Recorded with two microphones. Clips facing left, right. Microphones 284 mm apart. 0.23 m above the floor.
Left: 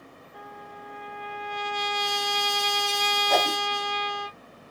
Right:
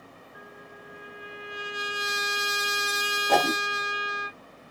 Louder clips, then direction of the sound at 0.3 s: Left 4 dB; 80° left.